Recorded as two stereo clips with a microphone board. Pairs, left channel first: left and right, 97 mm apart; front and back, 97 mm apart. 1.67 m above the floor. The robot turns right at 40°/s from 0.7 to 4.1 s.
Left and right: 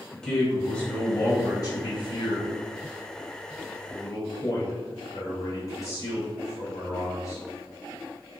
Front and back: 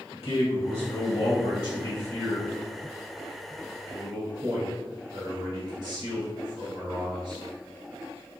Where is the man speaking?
5° left, 1.8 m; by 7.4 s 145° left, 1.8 m.